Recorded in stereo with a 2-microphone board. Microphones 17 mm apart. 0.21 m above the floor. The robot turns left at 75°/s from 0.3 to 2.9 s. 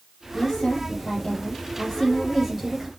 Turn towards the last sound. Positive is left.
turn(degrees=-35)